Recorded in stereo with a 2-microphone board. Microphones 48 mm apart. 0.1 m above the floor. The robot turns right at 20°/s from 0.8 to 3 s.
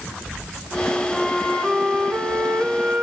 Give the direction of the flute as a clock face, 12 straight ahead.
5 o'clock.